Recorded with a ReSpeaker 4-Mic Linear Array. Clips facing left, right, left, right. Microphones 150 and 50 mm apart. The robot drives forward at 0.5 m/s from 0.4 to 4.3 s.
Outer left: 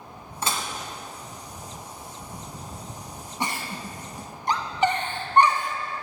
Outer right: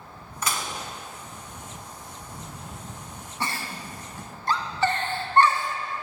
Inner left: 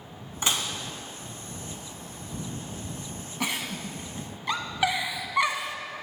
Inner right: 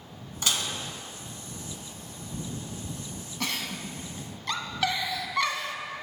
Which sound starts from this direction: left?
Dishes clattering, at 0.4 s.